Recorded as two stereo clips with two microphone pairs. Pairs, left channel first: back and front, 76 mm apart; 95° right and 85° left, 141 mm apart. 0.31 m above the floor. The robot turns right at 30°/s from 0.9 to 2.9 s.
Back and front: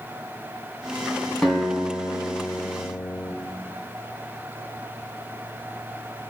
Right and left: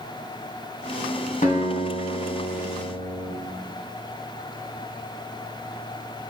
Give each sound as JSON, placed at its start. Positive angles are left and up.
{"t": 1.4, "sound": "a guitar", "azimuth_deg": -95, "distance_m": 2.0}